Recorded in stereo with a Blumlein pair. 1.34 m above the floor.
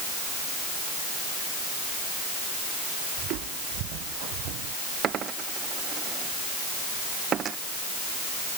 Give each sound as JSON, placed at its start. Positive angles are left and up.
{"t": 3.2, "sound": "footsteps", "azimuth_deg": -40}
{"t": 5.0, "sound": "a dropped coin", "azimuth_deg": -25}